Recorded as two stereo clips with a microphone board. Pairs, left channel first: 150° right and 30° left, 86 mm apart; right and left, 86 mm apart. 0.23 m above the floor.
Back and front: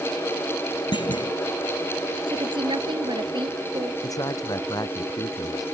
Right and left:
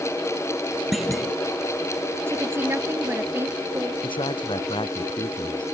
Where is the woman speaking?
30° left.